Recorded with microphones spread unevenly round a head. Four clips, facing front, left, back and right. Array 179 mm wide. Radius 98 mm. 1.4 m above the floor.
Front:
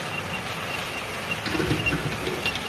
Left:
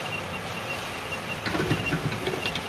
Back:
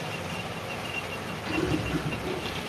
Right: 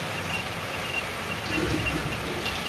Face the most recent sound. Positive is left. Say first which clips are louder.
# left 1 dB, front 2 dB
turn(degrees=45)